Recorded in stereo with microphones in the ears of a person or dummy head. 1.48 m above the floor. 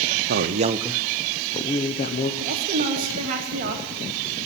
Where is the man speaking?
55° right (ahead or behind), 0.7 m; by 2.3 s 45° left (ahead or behind), 1.0 m.